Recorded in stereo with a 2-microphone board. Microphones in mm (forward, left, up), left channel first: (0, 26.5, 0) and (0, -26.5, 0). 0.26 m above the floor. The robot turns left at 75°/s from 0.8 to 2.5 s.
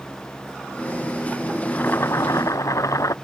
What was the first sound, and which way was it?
Boiling, 150° left.